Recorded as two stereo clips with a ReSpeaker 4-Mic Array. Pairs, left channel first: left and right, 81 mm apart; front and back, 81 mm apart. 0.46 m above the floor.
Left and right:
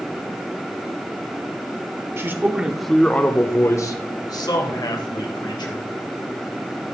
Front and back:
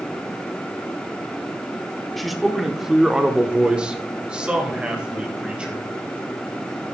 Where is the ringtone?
No ringtone in this recording.